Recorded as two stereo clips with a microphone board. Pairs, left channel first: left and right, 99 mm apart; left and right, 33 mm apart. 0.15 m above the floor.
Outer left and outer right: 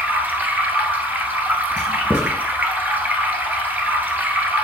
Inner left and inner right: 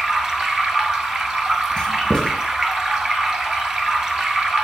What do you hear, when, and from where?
0.0 s running water: 20° right (ahead or behind), 1.0 m
1.8 s writing: 20° left (ahead or behind), 1.6 m